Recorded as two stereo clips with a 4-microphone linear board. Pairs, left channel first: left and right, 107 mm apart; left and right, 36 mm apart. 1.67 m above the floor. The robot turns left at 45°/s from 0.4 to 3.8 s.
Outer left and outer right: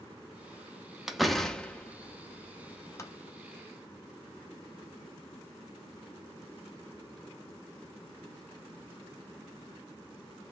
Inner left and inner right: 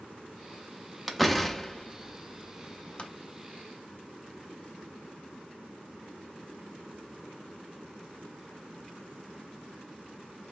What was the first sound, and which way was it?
A door slam, 5° right (ahead or behind).